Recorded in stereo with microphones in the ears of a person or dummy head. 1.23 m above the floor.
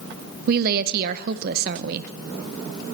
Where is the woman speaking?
50° right (ahead or behind), 0.6 m.